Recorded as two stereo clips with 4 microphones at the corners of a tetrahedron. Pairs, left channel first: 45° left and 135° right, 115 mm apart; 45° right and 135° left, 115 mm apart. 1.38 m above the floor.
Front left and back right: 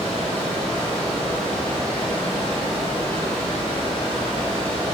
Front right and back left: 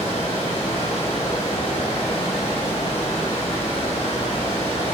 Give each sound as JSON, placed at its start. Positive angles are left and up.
{"t": 0.0, "sound": "running water", "azimuth_deg": -35, "distance_m": 5.0}